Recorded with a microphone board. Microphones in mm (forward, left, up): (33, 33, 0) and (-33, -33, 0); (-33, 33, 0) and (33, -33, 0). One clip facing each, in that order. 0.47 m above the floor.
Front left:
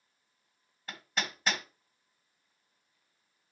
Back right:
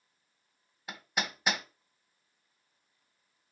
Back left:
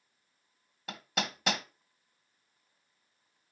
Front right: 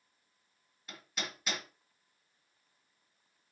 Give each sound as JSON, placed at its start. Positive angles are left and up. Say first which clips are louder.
{"t": 0.9, "sound": "hammering", "louder": "back right 1 dB, back left 7 dB", "azimuth_deg": 150, "distance_m": 1.0}